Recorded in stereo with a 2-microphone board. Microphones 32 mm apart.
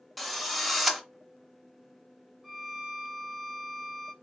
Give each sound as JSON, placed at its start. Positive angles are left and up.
{"t": 0.2, "sound": "a drill", "side_deg": 0, "distance_m": 0.7}
{"t": 2.4, "sound": "a violin", "side_deg": 0, "distance_m": 0.6}